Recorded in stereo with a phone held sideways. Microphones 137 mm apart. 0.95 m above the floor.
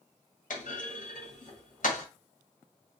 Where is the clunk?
70° left (ahead or behind), 1.6 m.